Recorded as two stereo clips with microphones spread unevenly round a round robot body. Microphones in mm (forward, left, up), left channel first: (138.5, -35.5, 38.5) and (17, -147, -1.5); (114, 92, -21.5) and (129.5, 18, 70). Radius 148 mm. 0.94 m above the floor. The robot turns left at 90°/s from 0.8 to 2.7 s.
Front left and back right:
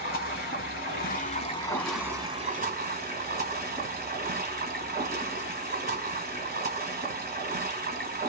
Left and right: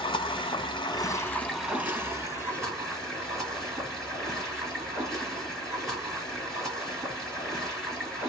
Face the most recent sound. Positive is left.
turn(degrees=-110)